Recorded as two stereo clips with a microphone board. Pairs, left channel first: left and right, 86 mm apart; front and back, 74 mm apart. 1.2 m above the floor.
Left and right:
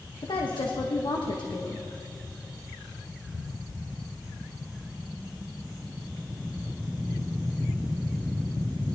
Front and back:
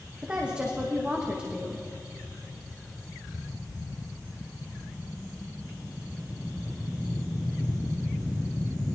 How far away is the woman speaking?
About 1.2 m.